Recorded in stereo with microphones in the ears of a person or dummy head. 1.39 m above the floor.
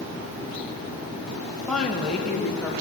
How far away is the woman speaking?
About 2.0 m.